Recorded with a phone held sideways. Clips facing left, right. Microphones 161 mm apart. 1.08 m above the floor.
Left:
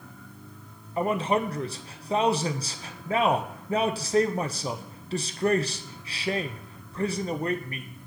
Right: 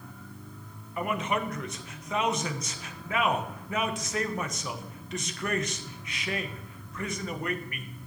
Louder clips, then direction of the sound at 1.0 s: Left 5 dB; 30° left (ahead or behind).